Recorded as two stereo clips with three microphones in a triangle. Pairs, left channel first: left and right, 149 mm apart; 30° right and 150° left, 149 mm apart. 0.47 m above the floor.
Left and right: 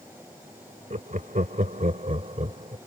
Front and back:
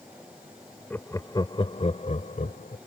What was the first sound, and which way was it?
Laughter, 105° right.